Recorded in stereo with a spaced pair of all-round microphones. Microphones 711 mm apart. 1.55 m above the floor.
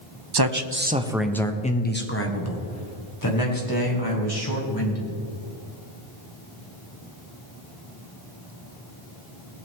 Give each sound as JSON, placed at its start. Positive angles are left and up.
{"t": 0.3, "sound": "a man speaking", "side_deg": -40, "distance_m": 0.6}